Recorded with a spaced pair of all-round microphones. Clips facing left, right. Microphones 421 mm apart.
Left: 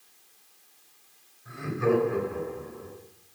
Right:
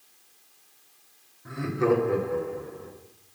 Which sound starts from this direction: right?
Laughter, at 1.4 s.